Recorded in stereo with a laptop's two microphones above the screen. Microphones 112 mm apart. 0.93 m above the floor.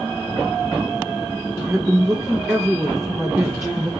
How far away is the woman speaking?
About 0.5 m.